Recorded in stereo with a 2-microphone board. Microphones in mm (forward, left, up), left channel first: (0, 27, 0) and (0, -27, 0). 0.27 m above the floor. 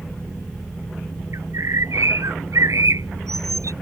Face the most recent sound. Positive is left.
turn(degrees=-75)  # may be behind; listen again after turning